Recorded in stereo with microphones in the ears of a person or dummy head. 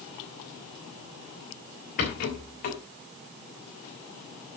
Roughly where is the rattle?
Left.